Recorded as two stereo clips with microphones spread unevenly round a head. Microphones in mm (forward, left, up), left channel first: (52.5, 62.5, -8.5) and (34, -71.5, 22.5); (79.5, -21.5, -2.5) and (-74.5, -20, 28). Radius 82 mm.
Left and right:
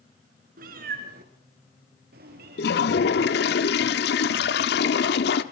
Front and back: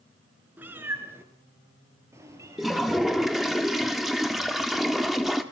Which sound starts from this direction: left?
A toilet flushing, at 2.6 s.